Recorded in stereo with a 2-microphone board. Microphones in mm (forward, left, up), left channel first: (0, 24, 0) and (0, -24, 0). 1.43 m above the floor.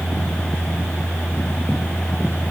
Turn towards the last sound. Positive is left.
No sound to turn to.